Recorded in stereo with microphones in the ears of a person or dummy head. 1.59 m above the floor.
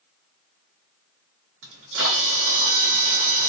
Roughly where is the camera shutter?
Right.